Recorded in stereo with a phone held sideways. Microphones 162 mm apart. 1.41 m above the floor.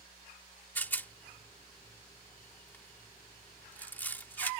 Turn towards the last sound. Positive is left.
turn(degrees=10)  # may be behind; listen again after turning